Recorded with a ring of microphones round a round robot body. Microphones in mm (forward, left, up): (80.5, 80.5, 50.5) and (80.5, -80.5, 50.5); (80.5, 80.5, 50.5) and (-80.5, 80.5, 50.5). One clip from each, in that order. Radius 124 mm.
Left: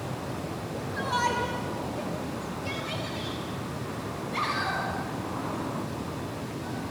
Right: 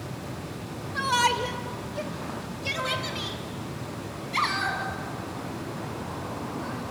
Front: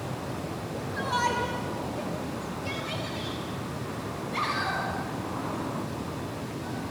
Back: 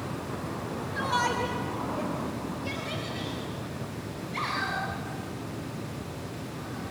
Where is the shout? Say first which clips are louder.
Right 4 dB, even; 95° right, 2.0 m; by 6.8 s 75° right, 10 m.